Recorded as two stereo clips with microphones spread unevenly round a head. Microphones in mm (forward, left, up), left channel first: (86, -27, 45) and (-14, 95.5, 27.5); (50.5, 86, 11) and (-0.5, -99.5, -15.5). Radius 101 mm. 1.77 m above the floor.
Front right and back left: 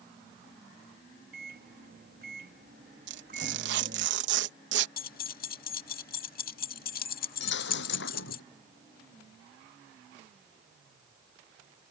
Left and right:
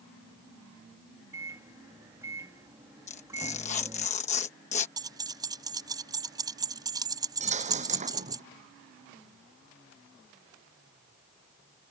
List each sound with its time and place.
1.3 s a microwave: 175° left
3.1 s tearing paper: 130° left
5.0 s keys jangling: 30° right
7.4 s a dropped coin: 50° right